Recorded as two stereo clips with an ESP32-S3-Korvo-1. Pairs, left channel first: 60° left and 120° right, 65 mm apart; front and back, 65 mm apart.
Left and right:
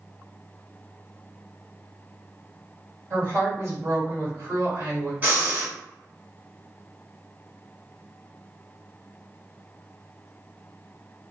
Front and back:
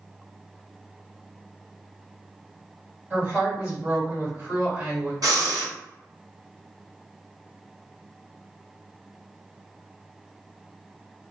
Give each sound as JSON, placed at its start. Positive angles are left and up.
{"t": 3.1, "sound": "a woman speaking", "azimuth_deg": -135, "distance_m": 2.0}
{"t": 5.2, "sound": "breathing", "azimuth_deg": 180, "distance_m": 1.5}